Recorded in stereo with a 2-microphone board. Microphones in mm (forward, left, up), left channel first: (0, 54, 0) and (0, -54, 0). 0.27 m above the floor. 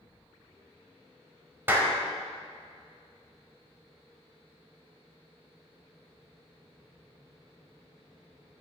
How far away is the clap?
About 1.2 m.